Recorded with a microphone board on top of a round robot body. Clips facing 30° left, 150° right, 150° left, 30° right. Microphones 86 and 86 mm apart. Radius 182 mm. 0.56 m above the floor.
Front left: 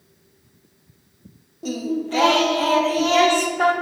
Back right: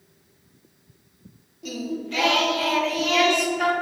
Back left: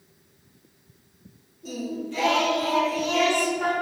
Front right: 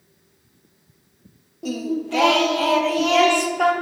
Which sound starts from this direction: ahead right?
Singing, at 1.6 s.